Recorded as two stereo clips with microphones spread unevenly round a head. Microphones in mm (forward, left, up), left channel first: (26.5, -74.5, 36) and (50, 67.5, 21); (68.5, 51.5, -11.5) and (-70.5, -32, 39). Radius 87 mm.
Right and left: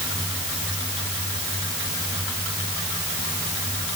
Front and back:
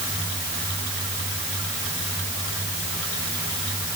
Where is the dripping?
I don't hear dripping.